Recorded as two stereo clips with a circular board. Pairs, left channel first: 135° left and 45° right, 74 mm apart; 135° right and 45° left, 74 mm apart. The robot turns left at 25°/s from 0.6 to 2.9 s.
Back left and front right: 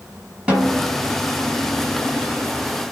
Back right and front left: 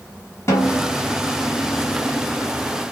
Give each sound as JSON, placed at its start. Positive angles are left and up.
{"t": 0.5, "sound": "a snare drum", "azimuth_deg": -110, "distance_m": 1.5}